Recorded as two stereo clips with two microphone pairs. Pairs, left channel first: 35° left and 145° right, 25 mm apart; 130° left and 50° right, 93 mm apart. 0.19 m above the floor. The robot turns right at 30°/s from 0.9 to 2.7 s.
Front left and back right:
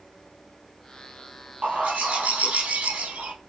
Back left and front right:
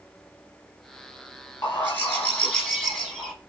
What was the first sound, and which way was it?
A bird, straight behind.